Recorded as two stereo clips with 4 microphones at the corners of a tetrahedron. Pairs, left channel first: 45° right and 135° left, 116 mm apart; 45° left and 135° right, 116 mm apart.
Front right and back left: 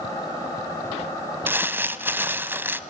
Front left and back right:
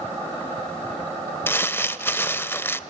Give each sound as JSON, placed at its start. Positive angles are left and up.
{"t": 1.5, "sound": "crumpling", "azimuth_deg": 95, "distance_m": 0.7}